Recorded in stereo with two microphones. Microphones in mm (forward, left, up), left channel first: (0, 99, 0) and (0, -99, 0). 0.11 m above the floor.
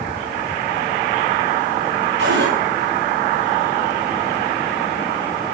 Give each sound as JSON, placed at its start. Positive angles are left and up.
{"t": 2.2, "sound": "a cupboard door", "side_deg": -70, "distance_m": 8.5}